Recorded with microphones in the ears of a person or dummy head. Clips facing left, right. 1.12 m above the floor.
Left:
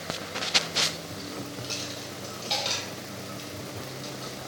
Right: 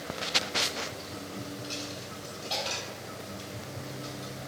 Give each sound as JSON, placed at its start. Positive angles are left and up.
{"t": 1.6, "sound": "a dropped coin", "side_deg": 30, "distance_m": 2.5}